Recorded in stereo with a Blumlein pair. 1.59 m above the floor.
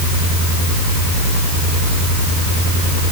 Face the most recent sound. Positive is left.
No sound to turn to.